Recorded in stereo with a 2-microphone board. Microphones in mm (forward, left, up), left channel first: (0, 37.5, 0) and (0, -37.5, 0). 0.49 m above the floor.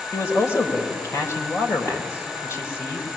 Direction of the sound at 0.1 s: 40° left (ahead or behind).